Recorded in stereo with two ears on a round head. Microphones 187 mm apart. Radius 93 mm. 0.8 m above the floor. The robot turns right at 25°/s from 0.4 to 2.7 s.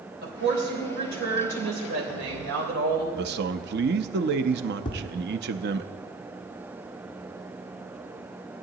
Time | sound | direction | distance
0.2 | a woman speaking | 130° right | 3 m
3.1 | a man speaking | 55° right (ahead or behind) | 0.6 m
4.8 | tapping | 25° left (ahead or behind) | 1.8 m